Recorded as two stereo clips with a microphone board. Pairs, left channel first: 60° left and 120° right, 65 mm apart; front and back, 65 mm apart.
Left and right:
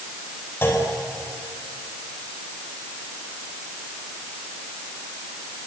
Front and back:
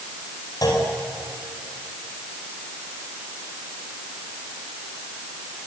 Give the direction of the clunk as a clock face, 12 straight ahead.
12 o'clock.